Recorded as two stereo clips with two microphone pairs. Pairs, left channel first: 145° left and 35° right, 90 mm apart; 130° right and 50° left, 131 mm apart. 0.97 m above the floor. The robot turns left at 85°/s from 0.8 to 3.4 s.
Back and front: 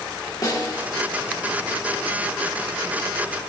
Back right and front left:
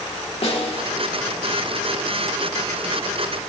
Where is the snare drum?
170° right, 2 m.